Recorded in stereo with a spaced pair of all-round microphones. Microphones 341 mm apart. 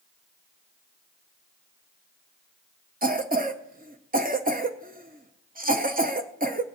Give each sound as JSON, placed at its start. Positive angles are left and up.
{"t": 3.0, "sound": "a cough", "side_deg": -25, "distance_m": 0.5}